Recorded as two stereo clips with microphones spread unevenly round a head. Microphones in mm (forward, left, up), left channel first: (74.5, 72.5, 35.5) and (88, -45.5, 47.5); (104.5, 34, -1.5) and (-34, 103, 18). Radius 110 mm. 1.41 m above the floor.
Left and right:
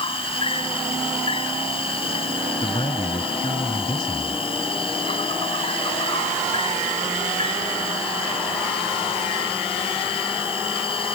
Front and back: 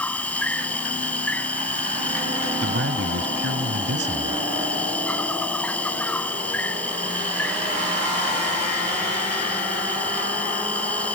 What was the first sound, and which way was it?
An insect, 55° left.